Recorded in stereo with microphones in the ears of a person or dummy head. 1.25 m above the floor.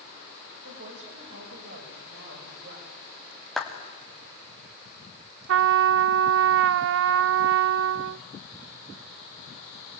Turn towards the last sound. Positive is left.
turn(degrees=-70)  # may be behind; listen again after turning